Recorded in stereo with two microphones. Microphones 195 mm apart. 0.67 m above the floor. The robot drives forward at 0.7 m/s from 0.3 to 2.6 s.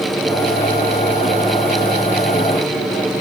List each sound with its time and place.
Only background noise.